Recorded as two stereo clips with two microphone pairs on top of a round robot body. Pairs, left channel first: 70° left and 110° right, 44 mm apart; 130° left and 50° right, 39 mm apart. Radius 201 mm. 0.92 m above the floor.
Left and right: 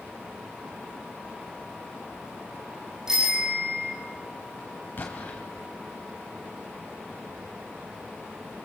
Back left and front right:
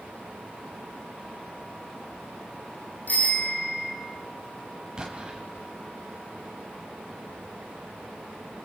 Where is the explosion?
30° left, 1.1 m.